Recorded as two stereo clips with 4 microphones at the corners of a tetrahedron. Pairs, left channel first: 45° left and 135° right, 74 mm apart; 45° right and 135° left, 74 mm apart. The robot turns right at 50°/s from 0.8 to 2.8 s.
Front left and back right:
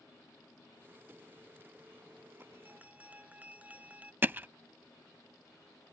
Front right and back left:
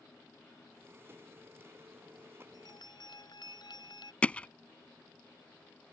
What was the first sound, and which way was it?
A bell, 75° right.